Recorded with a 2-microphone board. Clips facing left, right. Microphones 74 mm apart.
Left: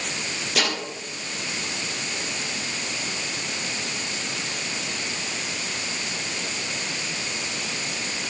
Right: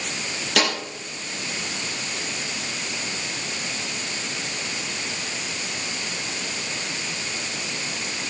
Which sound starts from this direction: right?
A snare drum, at 0.6 s.